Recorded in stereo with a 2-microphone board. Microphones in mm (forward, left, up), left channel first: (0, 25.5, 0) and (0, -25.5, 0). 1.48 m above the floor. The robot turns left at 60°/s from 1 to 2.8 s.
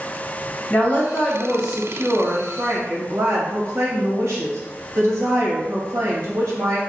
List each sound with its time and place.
0.7 s a woman speaking: 35° left, 1.6 m; by 6.8 s 75° right, 1.6 m